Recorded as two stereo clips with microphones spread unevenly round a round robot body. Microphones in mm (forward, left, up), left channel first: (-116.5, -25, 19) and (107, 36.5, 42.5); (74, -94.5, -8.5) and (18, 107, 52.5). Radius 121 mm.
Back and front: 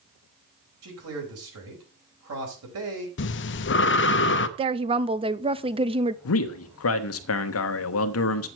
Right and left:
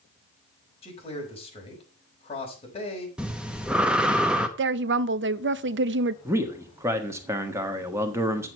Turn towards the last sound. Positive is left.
turn(degrees=-170)